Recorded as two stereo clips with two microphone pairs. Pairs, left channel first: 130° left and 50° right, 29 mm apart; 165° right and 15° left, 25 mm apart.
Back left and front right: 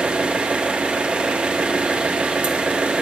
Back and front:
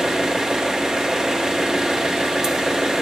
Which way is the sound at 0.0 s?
45° right.